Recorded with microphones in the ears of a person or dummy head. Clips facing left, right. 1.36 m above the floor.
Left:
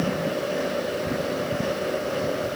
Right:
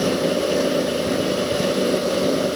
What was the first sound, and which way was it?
Only background noise.